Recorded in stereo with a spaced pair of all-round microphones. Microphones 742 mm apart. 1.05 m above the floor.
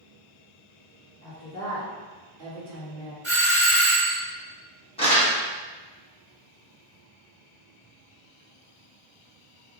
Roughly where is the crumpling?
Centre.